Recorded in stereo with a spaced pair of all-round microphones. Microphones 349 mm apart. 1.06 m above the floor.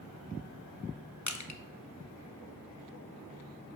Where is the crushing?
50° left (ahead or behind), 0.9 m.